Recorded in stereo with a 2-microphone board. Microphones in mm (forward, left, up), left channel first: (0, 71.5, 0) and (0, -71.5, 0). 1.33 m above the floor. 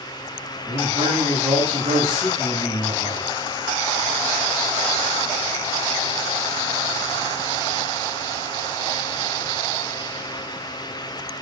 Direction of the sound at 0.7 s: 40° right (ahead or behind).